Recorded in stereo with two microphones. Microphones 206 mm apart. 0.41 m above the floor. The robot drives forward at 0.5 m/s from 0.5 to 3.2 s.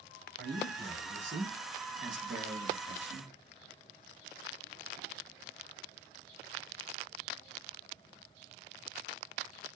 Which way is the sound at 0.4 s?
70° right (ahead or behind).